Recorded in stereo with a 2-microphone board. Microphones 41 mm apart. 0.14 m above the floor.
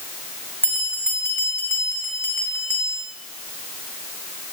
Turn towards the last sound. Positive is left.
turn(degrees=60)  # may be behind; listen again after turning